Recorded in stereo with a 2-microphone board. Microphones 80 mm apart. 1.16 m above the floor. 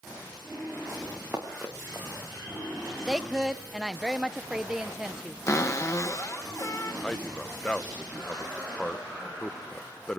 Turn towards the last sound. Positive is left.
turn(degrees=15)  # may be behind; listen again after turning